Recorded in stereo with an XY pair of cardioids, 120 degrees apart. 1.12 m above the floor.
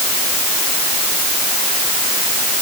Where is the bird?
No bird in this recording.